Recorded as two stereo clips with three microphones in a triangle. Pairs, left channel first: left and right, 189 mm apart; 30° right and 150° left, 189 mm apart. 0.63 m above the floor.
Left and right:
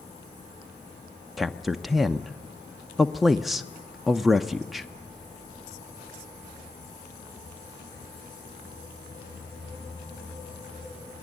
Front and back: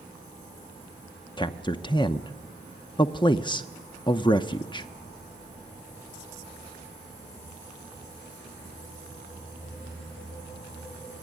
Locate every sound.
1.4 s a man speaking: straight ahead, 0.8 m